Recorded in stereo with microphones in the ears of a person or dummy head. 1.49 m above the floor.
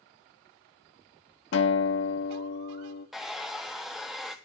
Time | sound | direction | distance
1.5 | a guitar | 70° left (ahead or behind) | 1.2 m
3.1 | a hair dryer | centre (ahead or behind) | 1.1 m